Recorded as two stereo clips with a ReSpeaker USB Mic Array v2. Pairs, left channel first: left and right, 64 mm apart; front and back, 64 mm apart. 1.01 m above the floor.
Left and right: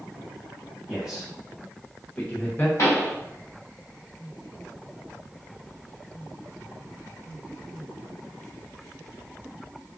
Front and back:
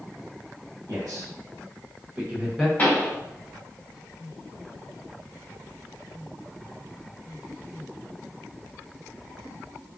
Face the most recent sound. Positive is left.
turn(degrees=65)